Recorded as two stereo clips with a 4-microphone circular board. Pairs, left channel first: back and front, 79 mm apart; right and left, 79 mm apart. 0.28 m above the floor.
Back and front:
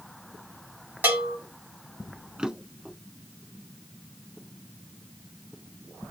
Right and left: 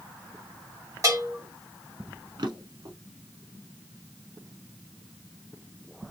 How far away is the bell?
About 2.5 m.